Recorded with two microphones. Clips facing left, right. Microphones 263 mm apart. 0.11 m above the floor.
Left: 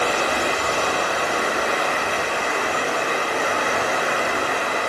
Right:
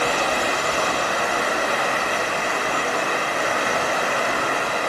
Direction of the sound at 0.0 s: 70° left (ahead or behind).